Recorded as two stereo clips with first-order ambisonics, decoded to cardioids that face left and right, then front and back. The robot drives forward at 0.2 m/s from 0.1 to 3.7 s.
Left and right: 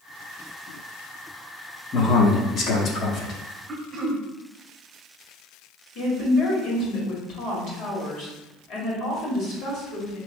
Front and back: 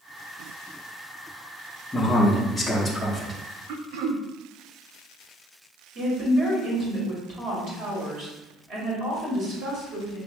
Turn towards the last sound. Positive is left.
turn(degrees=130)